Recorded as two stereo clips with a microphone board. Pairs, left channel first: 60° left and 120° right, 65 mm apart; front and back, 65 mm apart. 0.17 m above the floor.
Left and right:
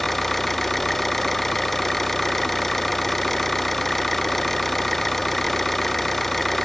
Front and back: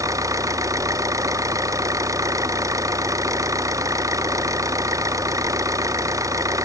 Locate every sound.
0.0 s an engine running: 145° left